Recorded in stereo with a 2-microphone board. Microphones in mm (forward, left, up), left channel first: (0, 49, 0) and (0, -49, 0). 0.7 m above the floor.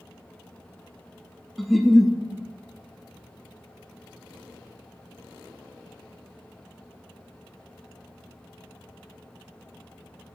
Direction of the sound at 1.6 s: Centre (ahead or behind).